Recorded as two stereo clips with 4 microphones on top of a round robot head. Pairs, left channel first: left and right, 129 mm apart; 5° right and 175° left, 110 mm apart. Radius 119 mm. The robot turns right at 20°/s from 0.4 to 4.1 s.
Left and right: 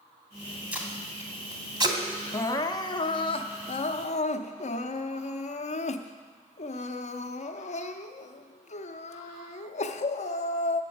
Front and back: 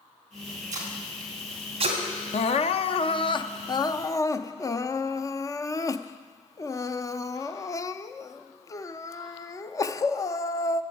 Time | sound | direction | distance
0.7 | tape being pulled | 170° right | 2.5 m
2.3 | crying | 20° left | 0.6 m